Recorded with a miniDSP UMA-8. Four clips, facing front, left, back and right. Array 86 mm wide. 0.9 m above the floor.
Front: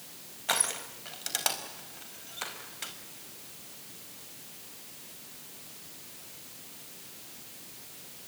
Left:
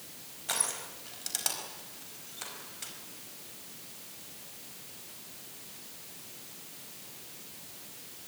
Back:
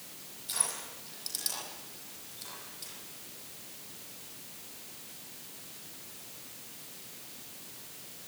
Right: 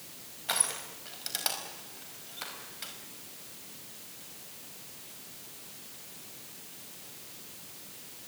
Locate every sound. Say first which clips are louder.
0.5 s crushing: right 2 dB, front 9 dB; 15° right, 4.5 m